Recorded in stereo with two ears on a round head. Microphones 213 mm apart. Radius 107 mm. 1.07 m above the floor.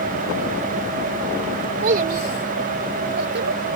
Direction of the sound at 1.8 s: 40° right (ahead or behind).